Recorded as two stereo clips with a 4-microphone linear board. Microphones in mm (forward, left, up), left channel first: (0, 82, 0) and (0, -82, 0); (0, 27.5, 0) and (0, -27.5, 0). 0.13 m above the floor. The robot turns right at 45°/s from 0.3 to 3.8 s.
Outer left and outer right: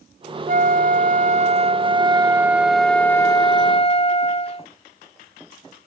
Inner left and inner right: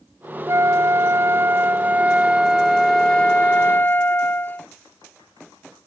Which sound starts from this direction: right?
A flute, at 0.5 s.